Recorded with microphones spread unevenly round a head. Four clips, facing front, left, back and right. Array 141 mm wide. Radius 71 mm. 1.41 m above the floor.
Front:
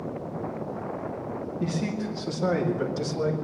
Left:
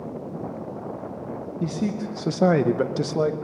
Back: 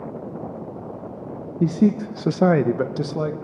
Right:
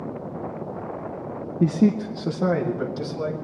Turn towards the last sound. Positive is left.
turn(degrees=125)